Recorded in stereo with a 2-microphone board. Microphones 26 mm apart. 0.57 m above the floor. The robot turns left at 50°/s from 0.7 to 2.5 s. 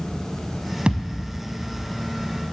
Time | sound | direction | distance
0.9 | a thud | 35° right (ahead or behind) | 0.8 m